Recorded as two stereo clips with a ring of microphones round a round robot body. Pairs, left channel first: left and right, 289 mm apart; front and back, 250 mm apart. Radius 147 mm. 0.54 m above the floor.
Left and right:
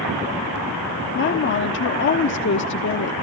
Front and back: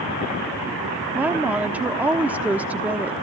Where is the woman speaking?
100° left, 1.1 m.